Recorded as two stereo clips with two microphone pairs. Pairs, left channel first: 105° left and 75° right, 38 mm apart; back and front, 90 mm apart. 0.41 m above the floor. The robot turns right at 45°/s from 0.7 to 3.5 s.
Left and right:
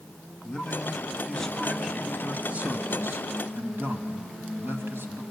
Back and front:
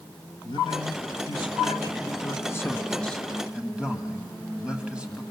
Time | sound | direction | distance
0.4 | a man speaking | 155° left | 2 m